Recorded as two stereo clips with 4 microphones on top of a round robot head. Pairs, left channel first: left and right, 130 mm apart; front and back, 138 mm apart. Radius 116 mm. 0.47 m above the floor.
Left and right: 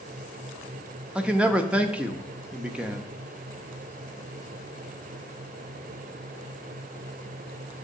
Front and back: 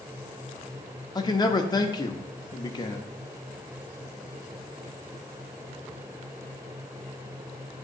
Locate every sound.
1.1 s a man speaking: 15° right, 0.8 m